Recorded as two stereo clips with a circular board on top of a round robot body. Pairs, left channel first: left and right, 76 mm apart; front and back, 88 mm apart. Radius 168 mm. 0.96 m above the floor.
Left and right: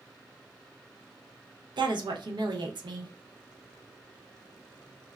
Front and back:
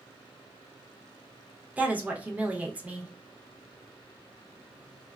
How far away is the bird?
I don't hear a bird.